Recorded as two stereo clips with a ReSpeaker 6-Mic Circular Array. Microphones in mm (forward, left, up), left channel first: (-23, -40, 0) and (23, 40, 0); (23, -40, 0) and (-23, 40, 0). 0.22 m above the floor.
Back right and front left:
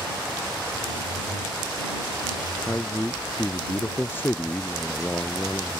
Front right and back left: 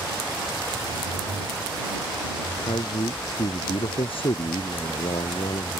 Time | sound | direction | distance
2.7 | a man speaking | 55° right | ?